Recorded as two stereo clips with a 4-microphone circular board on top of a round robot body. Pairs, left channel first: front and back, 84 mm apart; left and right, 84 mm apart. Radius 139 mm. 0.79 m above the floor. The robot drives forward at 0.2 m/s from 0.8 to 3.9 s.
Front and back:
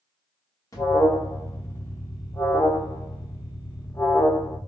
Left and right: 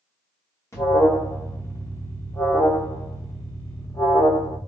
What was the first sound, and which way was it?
An alarm, 45° left.